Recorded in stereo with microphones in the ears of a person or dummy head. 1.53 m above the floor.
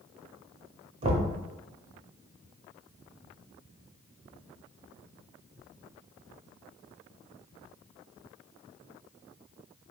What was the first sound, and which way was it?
Knocking, 40° right (ahead or behind).